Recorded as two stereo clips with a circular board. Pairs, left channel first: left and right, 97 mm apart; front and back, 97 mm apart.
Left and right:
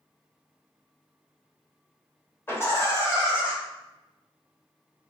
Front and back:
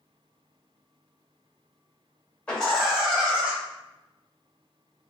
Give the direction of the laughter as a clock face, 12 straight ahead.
10 o'clock.